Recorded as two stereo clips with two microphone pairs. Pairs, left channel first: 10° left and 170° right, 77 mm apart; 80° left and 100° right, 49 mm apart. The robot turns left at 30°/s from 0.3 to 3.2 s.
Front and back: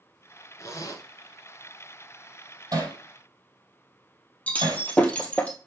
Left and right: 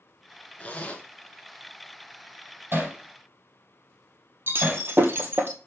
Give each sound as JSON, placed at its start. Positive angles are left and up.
{"t": 0.6, "sound": "a zipper", "azimuth_deg": 35, "distance_m": 1.6}
{"t": 2.7, "sound": "hammering", "azimuth_deg": -140, "distance_m": 4.5}
{"t": 4.5, "sound": "breaking glass", "azimuth_deg": -60, "distance_m": 1.5}